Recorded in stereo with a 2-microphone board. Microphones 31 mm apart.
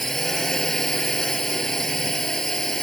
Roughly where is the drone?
Centre.